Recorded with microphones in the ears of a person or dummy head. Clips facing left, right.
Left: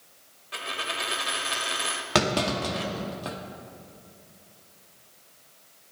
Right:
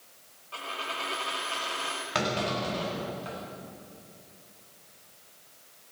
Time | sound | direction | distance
0.5 | a dropped coin | 20° left (ahead or behind) | 1.3 m
2.1 | a clunk | 75° left (ahead or behind) | 2 m